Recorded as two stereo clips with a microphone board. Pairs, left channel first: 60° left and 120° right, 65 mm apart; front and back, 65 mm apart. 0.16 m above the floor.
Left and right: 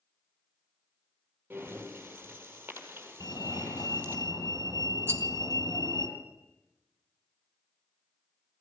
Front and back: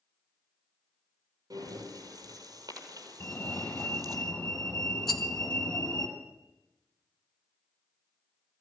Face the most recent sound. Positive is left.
turn(degrees=-80)